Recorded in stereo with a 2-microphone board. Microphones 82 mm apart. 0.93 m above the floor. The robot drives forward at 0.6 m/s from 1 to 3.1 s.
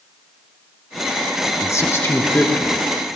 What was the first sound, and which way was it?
A man speaking, 35° left (ahead or behind).